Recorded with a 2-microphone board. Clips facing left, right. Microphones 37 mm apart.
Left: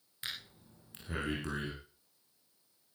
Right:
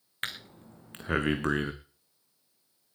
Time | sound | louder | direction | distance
0.2 | breathing | right 6 dB | 55° right (ahead or behind) | 2.5 m